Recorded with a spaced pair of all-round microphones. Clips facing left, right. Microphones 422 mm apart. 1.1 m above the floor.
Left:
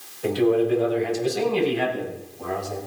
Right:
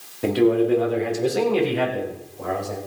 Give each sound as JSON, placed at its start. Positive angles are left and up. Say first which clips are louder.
{"t": 0.2, "sound": "a man speaking", "louder": "right 2 dB", "side_deg": -75, "distance_m": 3.0}